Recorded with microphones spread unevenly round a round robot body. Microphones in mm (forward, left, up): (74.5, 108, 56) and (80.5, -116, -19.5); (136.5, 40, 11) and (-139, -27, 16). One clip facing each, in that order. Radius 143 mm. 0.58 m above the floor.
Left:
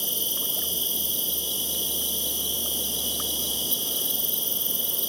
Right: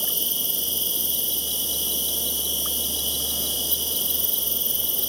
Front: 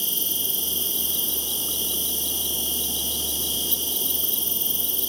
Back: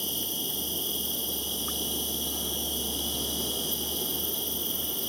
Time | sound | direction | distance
0.0 | an insect | 35° right | 1.3 m